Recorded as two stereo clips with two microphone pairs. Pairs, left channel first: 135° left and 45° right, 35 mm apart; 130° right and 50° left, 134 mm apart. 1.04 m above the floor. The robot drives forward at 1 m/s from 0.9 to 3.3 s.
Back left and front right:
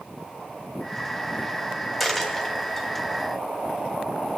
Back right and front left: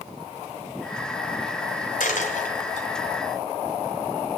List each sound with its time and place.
2.0 s a dropped coin: 135° right, 2.5 m; by 2.9 s 145° right, 3 m